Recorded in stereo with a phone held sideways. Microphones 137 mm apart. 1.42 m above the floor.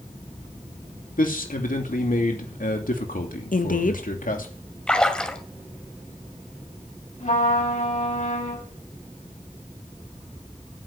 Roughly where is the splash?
Centre.